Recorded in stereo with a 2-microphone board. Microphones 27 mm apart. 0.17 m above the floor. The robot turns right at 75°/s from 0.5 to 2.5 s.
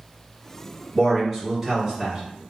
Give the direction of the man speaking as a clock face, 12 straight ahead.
7 o'clock.